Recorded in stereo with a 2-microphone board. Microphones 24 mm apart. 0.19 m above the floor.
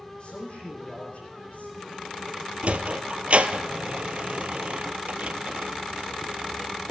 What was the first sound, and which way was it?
A man speaking, 55° left (ahead or behind).